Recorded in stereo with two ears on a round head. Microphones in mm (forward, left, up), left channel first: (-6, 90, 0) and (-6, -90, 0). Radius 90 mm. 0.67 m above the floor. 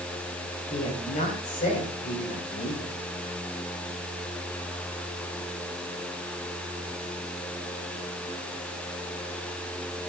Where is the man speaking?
40° left (ahead or behind), 3.5 m.